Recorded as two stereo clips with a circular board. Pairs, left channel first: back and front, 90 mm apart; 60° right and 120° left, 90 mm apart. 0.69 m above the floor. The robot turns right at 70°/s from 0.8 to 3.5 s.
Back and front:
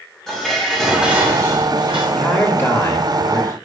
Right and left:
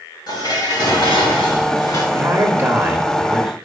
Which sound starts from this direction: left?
A man speaking, at 2.1 s.